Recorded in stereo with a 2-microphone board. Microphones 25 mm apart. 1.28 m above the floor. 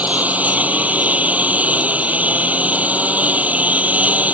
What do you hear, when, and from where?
0.0 s a lawn mower: 85° right